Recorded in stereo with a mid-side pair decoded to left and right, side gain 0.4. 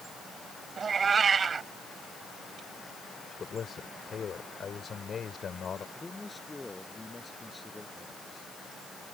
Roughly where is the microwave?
No microwave in this recording.